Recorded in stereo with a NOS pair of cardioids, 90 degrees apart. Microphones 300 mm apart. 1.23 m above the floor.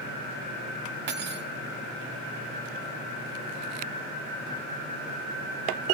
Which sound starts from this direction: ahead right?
Cutlery clinking, at 1.1 s.